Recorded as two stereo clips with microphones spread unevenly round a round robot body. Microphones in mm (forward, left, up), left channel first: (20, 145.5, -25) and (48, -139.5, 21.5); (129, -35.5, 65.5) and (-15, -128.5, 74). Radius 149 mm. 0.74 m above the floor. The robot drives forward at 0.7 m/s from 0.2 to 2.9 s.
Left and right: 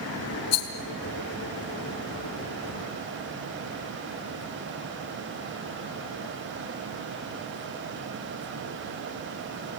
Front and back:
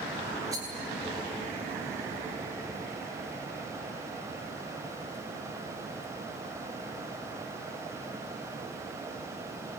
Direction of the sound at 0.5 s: 135° left.